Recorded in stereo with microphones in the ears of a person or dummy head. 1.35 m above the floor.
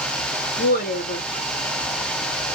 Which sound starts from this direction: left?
A woman speaking, at 0.6 s.